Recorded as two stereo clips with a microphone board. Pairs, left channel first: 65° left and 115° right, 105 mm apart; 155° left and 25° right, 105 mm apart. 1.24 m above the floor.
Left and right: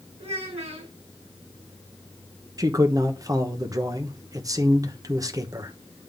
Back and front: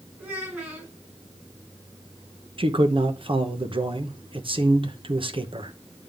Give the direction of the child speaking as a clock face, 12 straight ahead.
3 o'clock.